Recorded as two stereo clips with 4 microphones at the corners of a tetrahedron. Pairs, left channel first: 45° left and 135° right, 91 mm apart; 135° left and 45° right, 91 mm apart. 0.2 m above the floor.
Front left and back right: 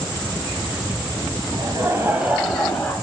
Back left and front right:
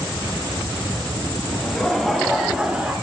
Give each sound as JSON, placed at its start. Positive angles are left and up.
{"t": 1.5, "sound": "laughter", "azimuth_deg": -145, "distance_m": 1.3}